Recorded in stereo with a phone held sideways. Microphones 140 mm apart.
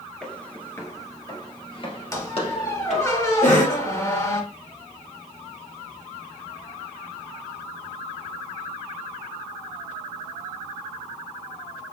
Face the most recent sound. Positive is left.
turn(degrees=60)  # may be behind; listen again after turning